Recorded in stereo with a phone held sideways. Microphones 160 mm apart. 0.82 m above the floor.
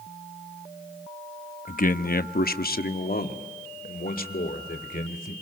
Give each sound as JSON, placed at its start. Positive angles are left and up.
{"t": 1.7, "sound": "a man speaking", "side_deg": 55, "distance_m": 0.7}